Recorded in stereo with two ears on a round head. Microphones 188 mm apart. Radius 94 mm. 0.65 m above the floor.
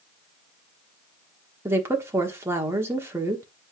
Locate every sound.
1.6 s a woman speaking: 10° right (ahead or behind), 1.3 m